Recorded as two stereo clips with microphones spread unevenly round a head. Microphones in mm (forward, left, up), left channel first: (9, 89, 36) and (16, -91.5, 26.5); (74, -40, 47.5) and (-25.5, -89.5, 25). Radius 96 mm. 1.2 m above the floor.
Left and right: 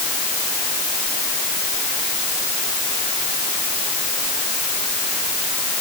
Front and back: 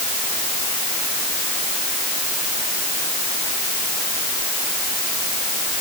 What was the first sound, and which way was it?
Only background noise.